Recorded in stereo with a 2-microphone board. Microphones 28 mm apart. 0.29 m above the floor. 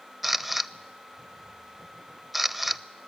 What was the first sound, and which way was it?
A camera shutter, 10° right (ahead or behind).